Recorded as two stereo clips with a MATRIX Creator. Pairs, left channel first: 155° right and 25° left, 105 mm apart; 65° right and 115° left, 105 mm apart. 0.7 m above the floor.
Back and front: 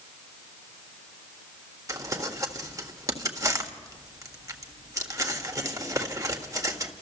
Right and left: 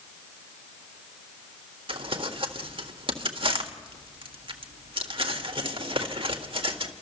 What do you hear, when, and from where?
1.9 s crumpling: 80° left, 1.6 m